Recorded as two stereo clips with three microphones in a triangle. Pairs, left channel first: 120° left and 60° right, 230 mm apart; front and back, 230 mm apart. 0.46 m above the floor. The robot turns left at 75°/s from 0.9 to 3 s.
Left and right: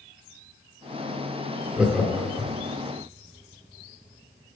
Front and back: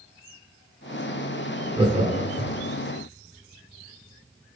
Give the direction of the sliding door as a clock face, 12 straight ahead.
No sliding door in this recording.